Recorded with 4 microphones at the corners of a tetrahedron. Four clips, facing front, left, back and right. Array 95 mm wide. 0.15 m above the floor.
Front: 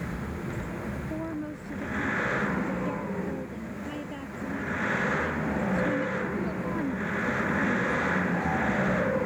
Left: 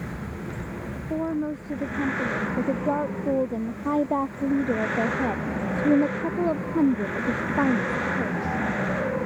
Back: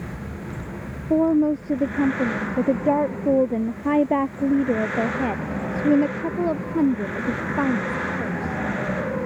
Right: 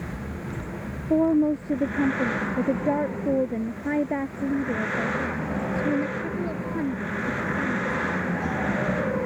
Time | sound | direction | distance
1.1 | a woman speaking | 150° right | ?